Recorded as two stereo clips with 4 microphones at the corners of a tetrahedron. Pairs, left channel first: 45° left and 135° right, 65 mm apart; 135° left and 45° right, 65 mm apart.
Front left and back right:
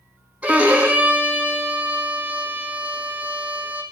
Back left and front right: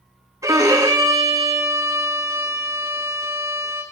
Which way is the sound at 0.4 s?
70° right.